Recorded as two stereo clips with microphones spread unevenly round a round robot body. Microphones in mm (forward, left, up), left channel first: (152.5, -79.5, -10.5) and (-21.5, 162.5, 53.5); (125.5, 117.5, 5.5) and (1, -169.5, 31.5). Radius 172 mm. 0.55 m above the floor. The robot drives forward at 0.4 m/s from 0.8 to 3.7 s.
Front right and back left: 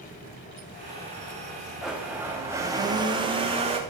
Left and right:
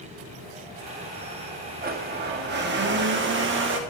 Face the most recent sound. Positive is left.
turn(degrees=-155)